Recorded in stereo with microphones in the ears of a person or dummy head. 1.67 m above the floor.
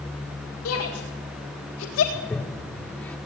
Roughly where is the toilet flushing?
Centre.